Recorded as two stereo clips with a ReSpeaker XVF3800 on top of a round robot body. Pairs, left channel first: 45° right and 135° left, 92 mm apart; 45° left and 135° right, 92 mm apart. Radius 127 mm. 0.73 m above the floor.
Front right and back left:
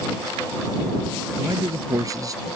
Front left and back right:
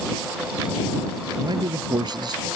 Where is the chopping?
No chopping in this recording.